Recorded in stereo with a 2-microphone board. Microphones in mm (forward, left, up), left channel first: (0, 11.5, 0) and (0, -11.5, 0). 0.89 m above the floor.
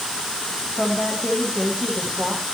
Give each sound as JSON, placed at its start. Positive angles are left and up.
{"t": 0.8, "sound": "a woman speaking", "side_deg": 75, "distance_m": 5.5}